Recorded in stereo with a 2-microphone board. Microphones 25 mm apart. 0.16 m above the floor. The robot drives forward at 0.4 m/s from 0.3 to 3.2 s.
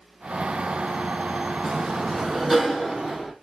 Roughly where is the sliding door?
Centre.